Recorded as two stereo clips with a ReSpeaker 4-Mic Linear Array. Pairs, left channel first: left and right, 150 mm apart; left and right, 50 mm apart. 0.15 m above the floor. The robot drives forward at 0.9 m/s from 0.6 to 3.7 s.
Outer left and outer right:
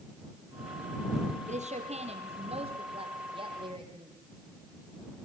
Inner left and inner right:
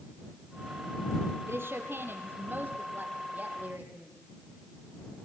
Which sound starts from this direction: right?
A woman speaking, at 1.5 s.